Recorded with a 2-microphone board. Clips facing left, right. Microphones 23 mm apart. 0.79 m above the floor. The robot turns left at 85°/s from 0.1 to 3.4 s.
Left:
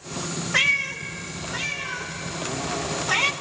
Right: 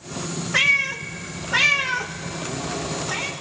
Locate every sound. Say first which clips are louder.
0.5 s a cat meowing: right 3 dB; centre (ahead or behind), 0.6 m; by 3.3 s 40° left (ahead or behind), 0.6 m